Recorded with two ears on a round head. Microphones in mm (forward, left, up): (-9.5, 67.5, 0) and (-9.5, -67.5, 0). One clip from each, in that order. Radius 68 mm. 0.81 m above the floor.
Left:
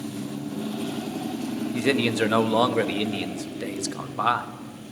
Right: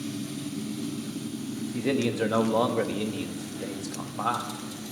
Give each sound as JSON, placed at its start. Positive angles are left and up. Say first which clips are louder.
{"t": 1.7, "sound": "a man speaking", "louder": "left 4 dB", "side_deg": 50, "distance_m": 0.8}